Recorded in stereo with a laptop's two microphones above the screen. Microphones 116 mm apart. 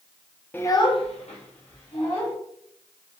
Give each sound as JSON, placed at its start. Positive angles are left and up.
{"t": 0.5, "sound": "a child speaking", "side_deg": 15, "distance_m": 0.6}